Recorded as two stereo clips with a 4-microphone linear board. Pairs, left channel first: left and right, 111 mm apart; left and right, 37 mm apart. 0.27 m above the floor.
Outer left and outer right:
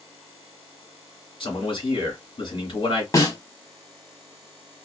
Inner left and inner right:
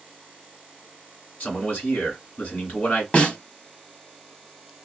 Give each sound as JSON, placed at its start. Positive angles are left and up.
{"t": 1.4, "sound": "a man speaking", "side_deg": 50, "distance_m": 2.0}
{"t": 3.1, "sound": "a snare drum", "side_deg": 35, "distance_m": 1.0}